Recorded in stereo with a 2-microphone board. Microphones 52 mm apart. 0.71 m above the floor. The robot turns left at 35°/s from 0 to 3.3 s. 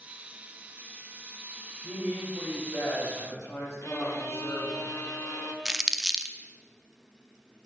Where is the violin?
65° left (ahead or behind), 1.3 m.